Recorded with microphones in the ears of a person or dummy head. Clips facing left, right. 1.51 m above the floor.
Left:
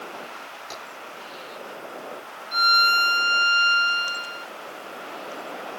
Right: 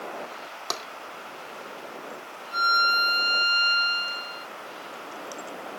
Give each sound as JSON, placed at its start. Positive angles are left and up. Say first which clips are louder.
{"t": 0.7, "sound": "tapping", "louder": "right 5 dB", "side_deg": -80, "distance_m": 3.0}
{"t": 2.5, "sound": "a violin", "louder": "left 2 dB", "side_deg": 30, "distance_m": 5.5}